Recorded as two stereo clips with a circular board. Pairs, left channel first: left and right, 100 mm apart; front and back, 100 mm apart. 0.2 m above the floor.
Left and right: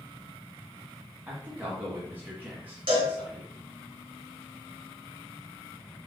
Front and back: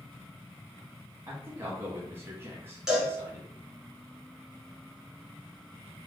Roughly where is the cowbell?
Right.